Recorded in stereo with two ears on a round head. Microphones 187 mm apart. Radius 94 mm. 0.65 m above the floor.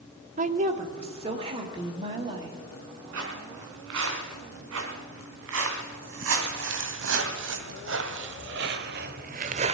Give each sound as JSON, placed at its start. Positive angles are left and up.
{"t": 0.4, "sound": "a woman speaking", "side_deg": -40, "distance_m": 0.9}
{"t": 3.1, "sound": "footsteps", "side_deg": -65, "distance_m": 4.0}